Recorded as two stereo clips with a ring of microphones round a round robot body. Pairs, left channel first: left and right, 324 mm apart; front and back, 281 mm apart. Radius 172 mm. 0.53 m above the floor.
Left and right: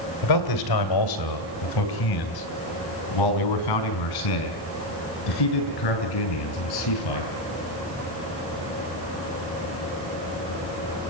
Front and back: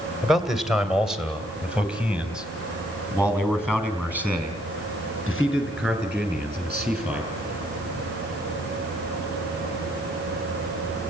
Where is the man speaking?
90° left, 2.5 m; by 7.3 s 95° left, 6 m.